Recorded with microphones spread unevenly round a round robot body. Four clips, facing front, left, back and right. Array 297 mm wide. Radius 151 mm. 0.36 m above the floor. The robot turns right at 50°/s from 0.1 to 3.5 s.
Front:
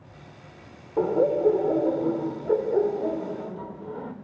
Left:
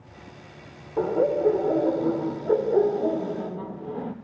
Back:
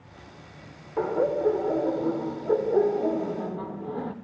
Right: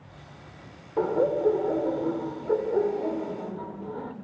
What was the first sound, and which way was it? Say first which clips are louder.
Laughter: left 1 dB, front 3 dB; 5° left.